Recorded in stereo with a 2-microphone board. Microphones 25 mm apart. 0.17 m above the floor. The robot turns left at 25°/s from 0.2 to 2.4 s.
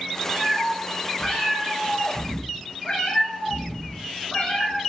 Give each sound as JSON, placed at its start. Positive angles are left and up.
{"t": 0.3, "sound": "a cat meowing", "azimuth_deg": -170, "distance_m": 0.9}